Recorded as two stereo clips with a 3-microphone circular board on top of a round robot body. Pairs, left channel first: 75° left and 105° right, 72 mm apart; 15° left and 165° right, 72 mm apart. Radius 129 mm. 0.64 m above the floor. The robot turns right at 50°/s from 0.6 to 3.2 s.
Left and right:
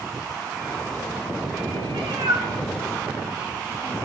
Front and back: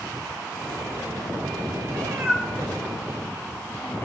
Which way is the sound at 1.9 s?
120° right.